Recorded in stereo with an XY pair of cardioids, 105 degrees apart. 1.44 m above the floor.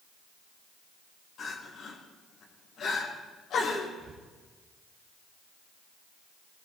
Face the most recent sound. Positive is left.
turn(degrees=-60)